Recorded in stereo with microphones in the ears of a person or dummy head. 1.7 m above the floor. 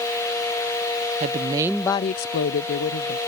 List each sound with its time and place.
1.2 s a woman speaking: 35° right (ahead or behind); by 3.2 s 70° left (ahead or behind)